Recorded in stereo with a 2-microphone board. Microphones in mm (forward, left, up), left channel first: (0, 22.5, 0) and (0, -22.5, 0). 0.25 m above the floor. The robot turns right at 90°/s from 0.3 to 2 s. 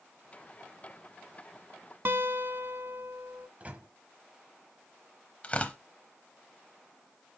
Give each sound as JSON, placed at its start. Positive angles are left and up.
{"t": 2.0, "sound": "a guitar", "side_deg": -55, "distance_m": 0.8}
{"t": 3.6, "sound": "a microwave", "side_deg": -35, "distance_m": 1.0}
{"t": 5.4, "sound": "tearing paper", "side_deg": 30, "distance_m": 0.8}